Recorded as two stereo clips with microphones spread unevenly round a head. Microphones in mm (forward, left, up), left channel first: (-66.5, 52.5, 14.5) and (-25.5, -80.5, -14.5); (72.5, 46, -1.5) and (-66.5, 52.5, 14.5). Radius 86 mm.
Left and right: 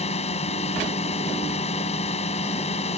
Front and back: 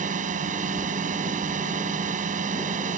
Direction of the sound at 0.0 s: 150° left.